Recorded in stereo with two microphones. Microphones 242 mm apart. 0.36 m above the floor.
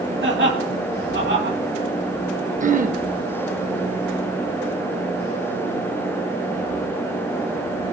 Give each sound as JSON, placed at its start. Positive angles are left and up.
{"t": 0.2, "sound": "laughter", "side_deg": -50, "distance_m": 2.5}
{"t": 2.6, "sound": "throat clearing", "side_deg": -30, "distance_m": 0.6}